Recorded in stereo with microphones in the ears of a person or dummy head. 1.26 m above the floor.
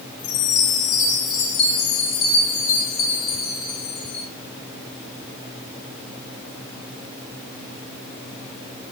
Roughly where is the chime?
Left.